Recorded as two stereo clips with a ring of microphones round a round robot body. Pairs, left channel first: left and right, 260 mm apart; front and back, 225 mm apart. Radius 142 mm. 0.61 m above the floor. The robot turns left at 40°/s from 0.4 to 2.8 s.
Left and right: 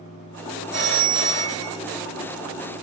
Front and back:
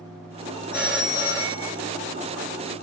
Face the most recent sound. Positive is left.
turn(degrees=-165)